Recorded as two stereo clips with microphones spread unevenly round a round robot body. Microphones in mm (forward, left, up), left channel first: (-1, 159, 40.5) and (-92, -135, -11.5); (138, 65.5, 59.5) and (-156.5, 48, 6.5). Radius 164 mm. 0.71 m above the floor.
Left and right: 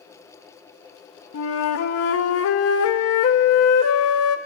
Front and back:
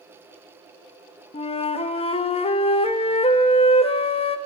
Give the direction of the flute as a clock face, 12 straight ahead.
9 o'clock.